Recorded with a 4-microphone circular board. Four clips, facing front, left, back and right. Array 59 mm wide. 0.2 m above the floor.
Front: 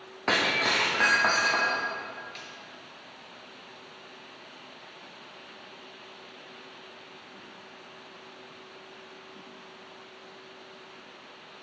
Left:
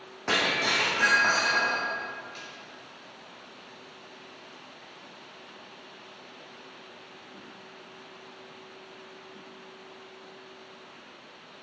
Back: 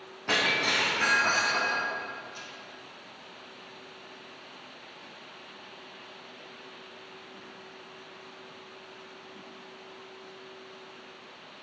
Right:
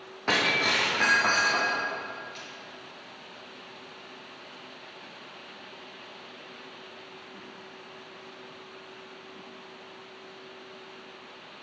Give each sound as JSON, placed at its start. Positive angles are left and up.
{"t": 0.3, "sound": "breaking glass", "azimuth_deg": -10, "distance_m": 3.0}
{"t": 2.4, "sound": "a snare drum", "azimuth_deg": 0, "distance_m": 2.5}